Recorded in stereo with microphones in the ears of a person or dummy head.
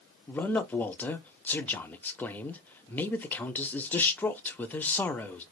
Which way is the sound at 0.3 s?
10° left (ahead or behind).